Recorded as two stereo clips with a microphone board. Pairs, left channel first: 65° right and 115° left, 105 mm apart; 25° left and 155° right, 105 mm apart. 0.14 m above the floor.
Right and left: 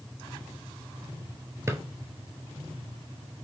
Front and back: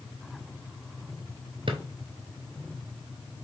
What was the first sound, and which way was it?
A drawer, 175° left.